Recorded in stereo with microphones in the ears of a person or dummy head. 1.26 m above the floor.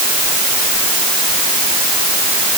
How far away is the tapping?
No tapping in this recording.